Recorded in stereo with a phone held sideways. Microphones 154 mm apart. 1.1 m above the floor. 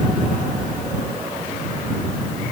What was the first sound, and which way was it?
Only background noise.